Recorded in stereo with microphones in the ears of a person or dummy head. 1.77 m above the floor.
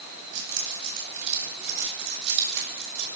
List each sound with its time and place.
0.3 s keys jangling: 75° right (ahead or behind), 9 m; by 3.1 s 70° right (ahead or behind), 6 m